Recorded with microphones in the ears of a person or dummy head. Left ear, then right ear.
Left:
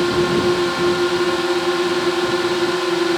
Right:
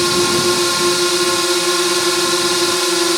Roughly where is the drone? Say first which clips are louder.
Right 2 dB; right.